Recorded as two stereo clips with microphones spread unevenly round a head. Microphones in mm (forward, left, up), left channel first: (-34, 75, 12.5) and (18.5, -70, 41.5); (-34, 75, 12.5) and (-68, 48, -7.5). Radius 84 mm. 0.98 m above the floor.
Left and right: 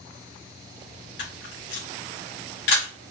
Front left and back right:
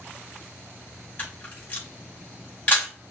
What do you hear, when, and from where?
1.2 s a camera shutter: 85° left, 2 m